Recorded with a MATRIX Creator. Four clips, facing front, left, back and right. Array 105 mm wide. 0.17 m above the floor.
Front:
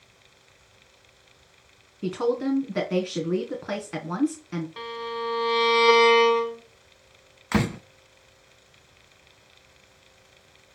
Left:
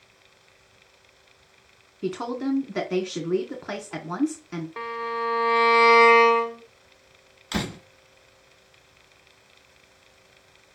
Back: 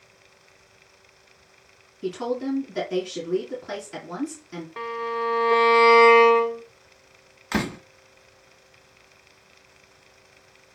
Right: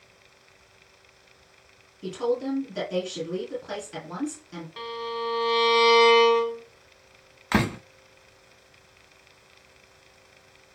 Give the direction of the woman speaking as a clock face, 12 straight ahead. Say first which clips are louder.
Right 1 dB, front 2 dB; 10 o'clock.